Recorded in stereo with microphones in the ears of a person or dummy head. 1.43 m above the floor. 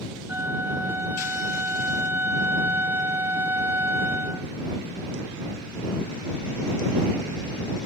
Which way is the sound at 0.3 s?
10° right (ahead or behind).